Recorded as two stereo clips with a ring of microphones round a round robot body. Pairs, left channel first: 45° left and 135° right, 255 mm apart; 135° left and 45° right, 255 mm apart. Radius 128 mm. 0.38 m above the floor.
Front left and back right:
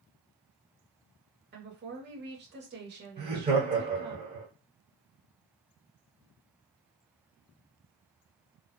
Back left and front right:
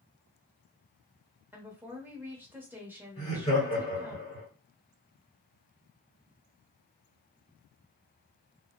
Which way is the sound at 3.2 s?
175° left.